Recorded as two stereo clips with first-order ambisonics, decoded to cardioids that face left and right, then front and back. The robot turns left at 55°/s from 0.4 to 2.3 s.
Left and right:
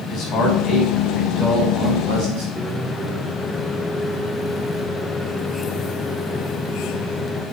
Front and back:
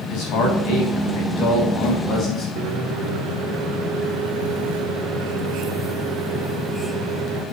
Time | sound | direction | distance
0.1 | a man speaking | 40° left | 4.5 m
2.6 | a microwave | 175° right | 1.1 m